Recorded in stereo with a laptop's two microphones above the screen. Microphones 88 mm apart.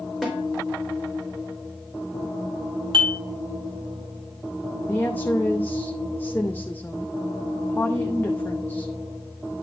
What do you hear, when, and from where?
0.2 s a snare drum: 5° right (ahead or behind), 3 m
2.9 s dishes clattering: 75° right (ahead or behind), 2.5 m
4.9 s a woman speaking: 25° left (ahead or behind), 0.7 m